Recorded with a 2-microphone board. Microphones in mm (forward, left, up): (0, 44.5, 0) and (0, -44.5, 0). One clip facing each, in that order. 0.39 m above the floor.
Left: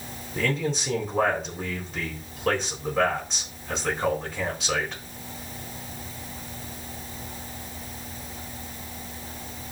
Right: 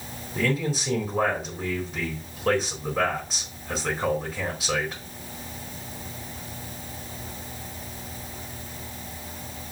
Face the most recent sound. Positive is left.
turn(degrees=0)  # may be behind; listen again after turning